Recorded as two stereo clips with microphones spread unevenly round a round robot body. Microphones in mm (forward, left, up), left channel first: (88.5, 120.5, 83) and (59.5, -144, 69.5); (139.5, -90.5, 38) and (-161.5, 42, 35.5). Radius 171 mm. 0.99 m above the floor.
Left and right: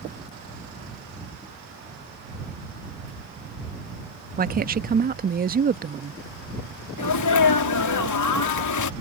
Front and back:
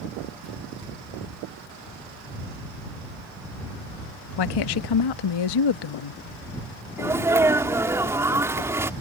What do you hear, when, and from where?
4.4 s a woman speaking: 40° right
7.0 s a sneeze: 75° left